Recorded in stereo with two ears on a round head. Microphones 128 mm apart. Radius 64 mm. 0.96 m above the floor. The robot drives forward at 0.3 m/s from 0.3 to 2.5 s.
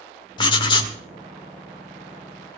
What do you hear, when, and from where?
0.4 s writing: 30° left (ahead or behind), 2.0 m; by 1.0 s 35° left (ahead or behind), 1.9 m